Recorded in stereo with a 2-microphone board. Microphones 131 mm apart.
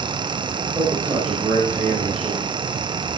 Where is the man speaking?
25° right (ahead or behind), 9 m.